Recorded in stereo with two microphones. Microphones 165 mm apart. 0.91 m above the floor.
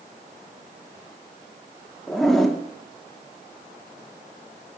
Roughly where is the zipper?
Centre.